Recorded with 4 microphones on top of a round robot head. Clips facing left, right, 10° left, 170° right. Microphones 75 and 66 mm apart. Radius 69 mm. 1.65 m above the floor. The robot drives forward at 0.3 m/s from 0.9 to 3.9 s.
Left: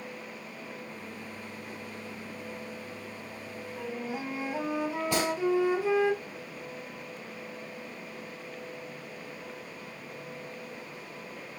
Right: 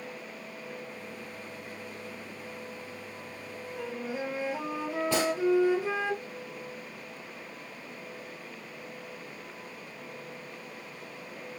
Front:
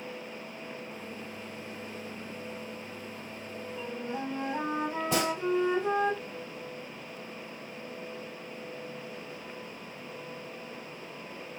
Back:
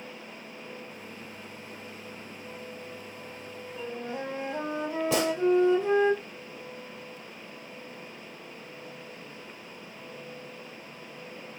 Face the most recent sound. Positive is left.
turn(degrees=-160)